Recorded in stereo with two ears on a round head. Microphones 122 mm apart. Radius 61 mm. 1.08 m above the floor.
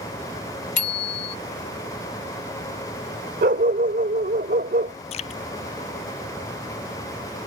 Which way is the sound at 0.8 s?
60° left (ahead or behind).